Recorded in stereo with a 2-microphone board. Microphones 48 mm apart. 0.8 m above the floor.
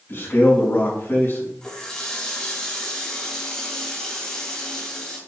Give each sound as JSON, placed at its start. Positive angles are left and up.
{"t": 0.1, "sound": "a man speaking", "side_deg": 35, "distance_m": 5.0}
{"t": 1.6, "sound": "a running tap", "side_deg": 15, "distance_m": 3.0}